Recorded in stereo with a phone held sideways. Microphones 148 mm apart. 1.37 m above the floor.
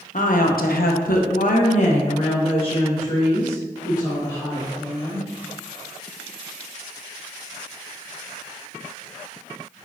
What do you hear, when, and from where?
0.1 s a woman speaking: 65° left (ahead or behind), 0.9 m; by 5.2 s 20° left (ahead or behind), 3 m